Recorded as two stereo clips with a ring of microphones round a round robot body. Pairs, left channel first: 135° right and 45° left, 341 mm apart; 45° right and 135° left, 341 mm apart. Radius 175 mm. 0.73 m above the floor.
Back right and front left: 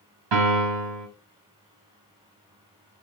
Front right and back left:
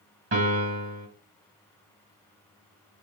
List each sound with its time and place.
0.3 s a piano: 75° left, 4 m